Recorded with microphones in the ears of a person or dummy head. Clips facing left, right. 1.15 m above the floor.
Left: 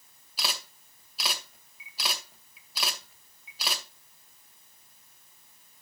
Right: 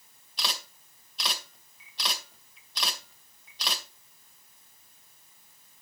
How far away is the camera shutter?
About 2 m.